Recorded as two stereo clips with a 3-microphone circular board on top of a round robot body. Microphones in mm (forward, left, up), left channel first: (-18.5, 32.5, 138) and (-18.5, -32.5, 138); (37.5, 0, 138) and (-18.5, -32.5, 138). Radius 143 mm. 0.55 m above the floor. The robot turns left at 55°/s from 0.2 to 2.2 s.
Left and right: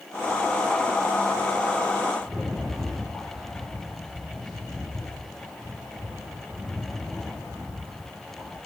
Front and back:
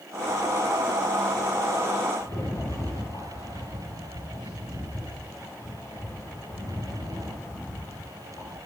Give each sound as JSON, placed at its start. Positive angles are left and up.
{"t": 2.2, "sound": "a rattle", "azimuth_deg": 0, "distance_m": 2.5}